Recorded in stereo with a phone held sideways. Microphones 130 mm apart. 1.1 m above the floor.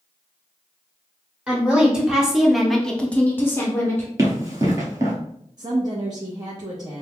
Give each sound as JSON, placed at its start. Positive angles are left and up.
{"t": 1.5, "sound": "a woman speaking", "side_deg": -10, "distance_m": 1.6}
{"t": 4.2, "sound": "running footsteps", "side_deg": -25, "distance_m": 1.2}
{"t": 5.6, "sound": "a woman speaking", "side_deg": -30, "distance_m": 0.7}